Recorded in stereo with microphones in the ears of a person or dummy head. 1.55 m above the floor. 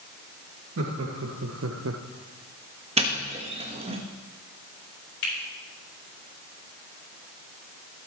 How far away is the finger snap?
About 5 m.